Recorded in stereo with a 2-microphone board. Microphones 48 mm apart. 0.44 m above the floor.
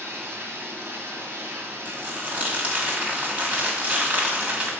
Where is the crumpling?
30° right (ahead or behind), 1.6 m.